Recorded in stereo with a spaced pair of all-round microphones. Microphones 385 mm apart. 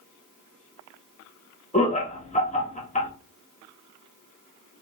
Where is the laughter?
20° left (ahead or behind), 0.9 m.